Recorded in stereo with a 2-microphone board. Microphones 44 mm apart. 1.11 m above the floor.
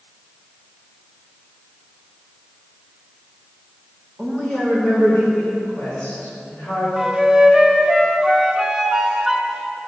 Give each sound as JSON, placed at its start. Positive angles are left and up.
{"t": 4.2, "sound": "a woman speaking", "side_deg": 10, "distance_m": 1.9}
{"t": 7.0, "sound": "a flute", "side_deg": -5, "distance_m": 0.7}